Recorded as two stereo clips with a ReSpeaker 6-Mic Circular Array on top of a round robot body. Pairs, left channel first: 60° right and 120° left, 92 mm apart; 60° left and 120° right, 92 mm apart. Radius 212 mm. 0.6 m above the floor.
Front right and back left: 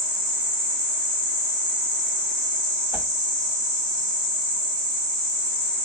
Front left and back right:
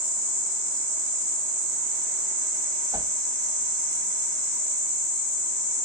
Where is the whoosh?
165° right, 1.8 m.